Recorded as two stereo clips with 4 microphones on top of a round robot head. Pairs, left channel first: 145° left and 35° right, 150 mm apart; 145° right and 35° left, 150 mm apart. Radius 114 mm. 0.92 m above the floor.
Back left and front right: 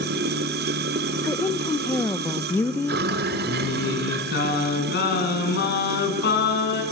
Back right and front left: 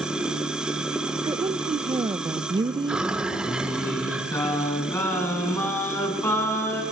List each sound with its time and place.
0.0 s running water: 50° right, 1.5 m
1.2 s a woman speaking: 80° left, 1.0 m
3.5 s singing: 140° left, 5.5 m